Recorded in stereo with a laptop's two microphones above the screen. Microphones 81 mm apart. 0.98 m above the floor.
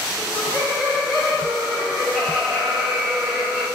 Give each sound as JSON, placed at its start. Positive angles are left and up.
{"t": 0.2, "sound": "laughter", "side_deg": 0, "distance_m": 4.0}